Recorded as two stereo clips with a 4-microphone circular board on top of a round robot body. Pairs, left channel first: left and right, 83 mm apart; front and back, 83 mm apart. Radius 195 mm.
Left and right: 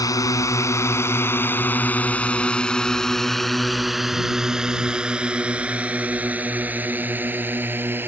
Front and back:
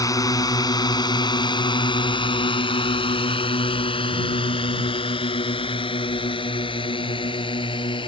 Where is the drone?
45° left; by 8.1 s 25° right.